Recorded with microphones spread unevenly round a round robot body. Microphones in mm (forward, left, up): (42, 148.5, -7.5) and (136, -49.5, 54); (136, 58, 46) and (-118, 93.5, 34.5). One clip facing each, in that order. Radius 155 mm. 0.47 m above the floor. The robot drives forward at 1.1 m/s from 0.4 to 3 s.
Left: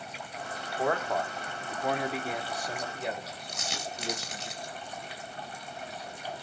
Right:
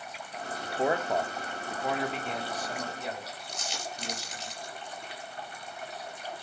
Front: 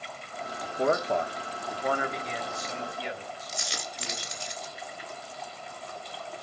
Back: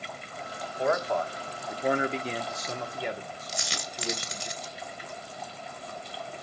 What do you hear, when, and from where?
0.6 s a man speaking: 10° left, 1.5 m; by 4.5 s 175° left, 1.9 m
3.5 s a dropped coin: 165° left, 3 m